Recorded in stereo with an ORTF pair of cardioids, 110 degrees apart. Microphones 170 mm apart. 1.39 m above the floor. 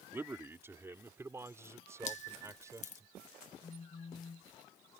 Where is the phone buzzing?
30° left.